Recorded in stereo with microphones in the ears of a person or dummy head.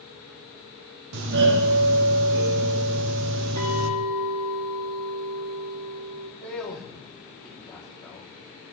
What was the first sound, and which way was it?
A doorbell, 60° right (ahead or behind).